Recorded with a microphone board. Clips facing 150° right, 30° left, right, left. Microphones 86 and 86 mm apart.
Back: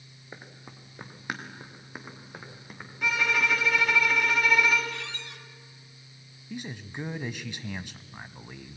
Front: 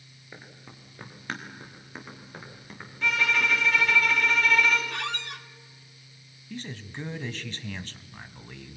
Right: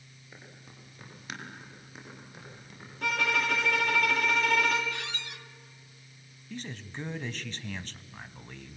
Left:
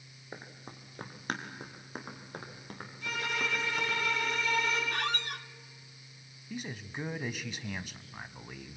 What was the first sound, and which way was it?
Running footsteps, 140° left.